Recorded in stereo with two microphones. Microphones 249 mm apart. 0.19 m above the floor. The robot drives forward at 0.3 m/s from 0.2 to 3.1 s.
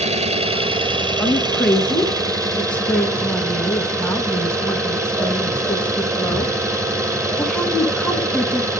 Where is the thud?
I don't hear a thud.